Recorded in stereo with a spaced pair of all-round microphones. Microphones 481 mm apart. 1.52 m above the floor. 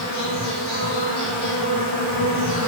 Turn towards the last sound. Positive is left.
turn(degrees=-55)  # may be behind; listen again after turning